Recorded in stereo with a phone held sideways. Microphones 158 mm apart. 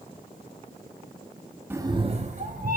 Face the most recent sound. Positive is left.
turn(degrees=-60)  # may be behind; listen again after turning